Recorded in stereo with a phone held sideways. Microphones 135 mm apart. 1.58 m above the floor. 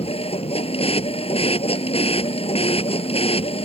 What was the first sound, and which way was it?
A machine running, 50° left (ahead or behind).